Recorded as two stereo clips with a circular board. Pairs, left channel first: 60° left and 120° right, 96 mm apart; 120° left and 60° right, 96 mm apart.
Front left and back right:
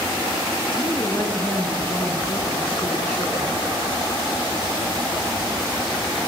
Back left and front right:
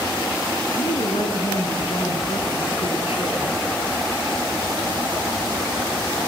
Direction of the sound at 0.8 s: 130° left.